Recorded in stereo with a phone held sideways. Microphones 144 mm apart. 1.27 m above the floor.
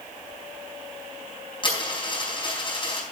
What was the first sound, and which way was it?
A dropped coin, 35° left (ahead or behind).